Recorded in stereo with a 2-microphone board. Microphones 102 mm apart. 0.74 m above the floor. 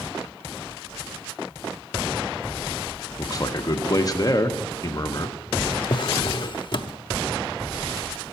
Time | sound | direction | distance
3.2 | a man speaking | 35° left (ahead or behind) | 0.9 m
5.9 | a drawer | 50° left (ahead or behind) | 0.7 m